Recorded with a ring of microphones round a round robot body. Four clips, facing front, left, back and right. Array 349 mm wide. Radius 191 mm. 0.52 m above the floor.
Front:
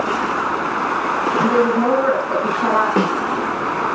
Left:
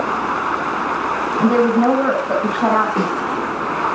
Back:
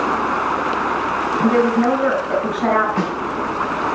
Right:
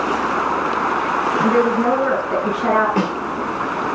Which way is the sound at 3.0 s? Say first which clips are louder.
Left 1 dB, front 4 dB; 5° right.